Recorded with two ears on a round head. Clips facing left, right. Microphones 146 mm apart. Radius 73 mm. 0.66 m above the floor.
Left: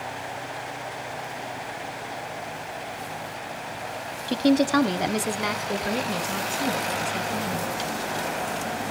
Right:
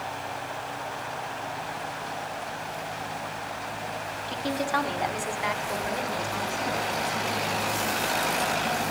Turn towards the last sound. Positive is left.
turn(degrees=35)  # may be behind; listen again after turning